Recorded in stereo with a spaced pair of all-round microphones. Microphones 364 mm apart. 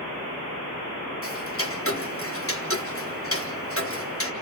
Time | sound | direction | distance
1.2 | ticking | 35° left (ahead or behind) | 1.2 m